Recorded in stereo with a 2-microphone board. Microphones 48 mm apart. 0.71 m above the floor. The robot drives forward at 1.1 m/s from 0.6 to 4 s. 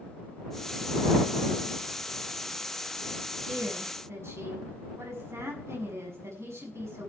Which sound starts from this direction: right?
A woman speaking, at 3.5 s.